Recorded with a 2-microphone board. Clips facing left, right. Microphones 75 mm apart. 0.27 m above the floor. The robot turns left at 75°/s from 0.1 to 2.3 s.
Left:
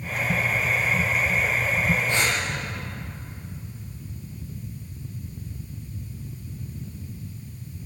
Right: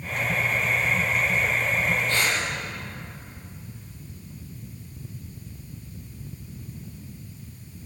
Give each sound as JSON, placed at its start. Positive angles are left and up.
{"t": 2.1, "sound": "breathing", "side_deg": 15, "distance_m": 7.5}